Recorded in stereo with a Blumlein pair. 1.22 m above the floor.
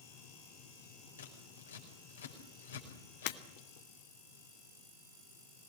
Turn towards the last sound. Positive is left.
turn(degrees=45)